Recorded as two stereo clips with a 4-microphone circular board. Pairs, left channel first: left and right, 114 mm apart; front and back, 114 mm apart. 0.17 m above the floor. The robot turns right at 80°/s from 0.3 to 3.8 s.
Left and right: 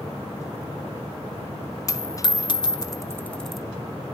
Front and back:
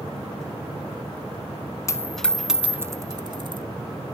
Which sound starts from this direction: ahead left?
A dropped coin, at 1.9 s.